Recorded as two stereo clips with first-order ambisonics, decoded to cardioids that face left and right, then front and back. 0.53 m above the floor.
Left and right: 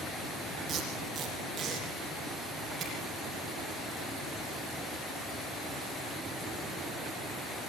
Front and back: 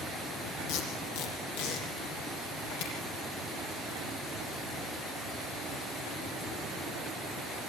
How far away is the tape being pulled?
About 7.5 m.